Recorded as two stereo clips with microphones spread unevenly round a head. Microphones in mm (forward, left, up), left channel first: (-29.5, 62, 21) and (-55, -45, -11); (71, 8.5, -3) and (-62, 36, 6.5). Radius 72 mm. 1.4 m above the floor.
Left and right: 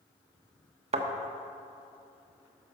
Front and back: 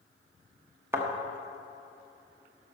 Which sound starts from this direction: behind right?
A thud, at 0.9 s.